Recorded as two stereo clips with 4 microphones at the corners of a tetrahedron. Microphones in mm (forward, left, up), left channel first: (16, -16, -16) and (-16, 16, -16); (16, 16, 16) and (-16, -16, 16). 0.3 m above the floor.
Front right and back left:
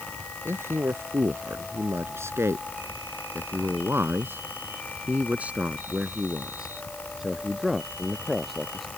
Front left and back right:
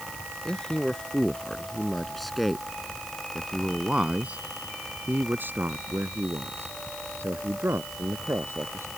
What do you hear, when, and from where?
0.5 s a man speaking: 120° left; by 8.9 s 130° right